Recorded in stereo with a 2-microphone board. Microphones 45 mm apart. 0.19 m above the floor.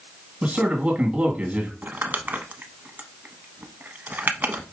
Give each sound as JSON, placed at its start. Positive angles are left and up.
{"t": 0.4, "sound": "a man speaking", "side_deg": -25, "distance_m": 1.9}
{"t": 1.8, "sound": "crumpling", "side_deg": -40, "distance_m": 0.7}